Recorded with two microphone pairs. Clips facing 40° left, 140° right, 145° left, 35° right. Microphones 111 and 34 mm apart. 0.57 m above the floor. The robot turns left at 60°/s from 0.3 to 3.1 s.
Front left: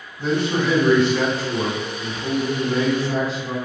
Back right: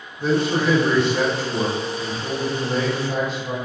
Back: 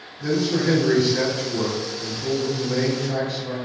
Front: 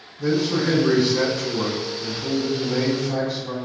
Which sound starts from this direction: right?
A man speaking, at 0.2 s.